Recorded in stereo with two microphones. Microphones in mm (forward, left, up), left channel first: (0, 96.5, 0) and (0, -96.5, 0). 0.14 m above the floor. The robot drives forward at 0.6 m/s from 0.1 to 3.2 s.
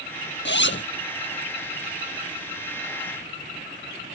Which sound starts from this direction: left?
A zipper, at 0.5 s.